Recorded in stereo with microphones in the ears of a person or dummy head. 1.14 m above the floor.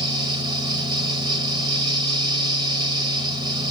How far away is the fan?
About 1.0 m.